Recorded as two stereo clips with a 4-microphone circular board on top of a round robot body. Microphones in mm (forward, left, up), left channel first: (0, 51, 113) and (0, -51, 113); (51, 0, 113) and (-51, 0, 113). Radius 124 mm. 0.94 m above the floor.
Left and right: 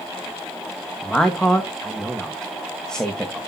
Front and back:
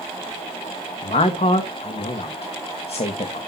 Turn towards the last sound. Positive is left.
turn(degrees=10)